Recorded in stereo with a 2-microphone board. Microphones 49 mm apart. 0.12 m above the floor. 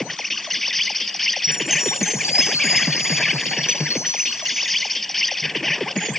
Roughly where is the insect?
Centre.